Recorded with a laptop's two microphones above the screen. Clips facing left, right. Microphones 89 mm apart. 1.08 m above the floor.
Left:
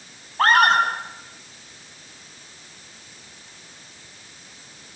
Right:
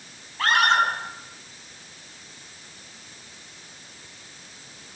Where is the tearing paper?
I don't hear tearing paper.